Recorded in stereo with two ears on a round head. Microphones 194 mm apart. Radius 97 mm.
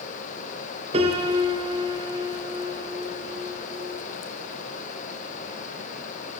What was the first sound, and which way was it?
A piano, 30° right (ahead or behind).